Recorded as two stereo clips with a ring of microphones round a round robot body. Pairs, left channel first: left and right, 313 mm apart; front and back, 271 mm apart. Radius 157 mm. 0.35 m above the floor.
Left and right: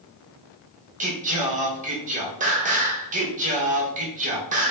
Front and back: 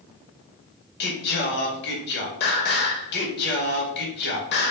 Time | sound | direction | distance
1.0 | singing | 35° right | 0.7 m